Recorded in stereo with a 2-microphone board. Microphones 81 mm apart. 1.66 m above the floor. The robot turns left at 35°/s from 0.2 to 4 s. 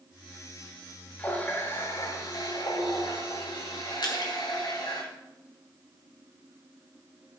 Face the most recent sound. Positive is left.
turn(degrees=60)  # may be behind; listen again after turning